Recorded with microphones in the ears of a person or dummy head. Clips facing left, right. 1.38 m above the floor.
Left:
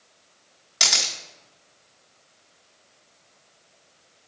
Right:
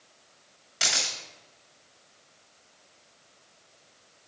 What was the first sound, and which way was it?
A camera shutter, 60° left (ahead or behind).